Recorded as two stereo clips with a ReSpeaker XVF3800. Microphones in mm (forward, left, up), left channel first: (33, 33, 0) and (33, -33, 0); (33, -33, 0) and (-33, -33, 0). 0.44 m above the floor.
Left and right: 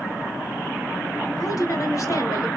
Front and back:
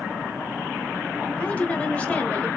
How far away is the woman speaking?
About 2.5 m.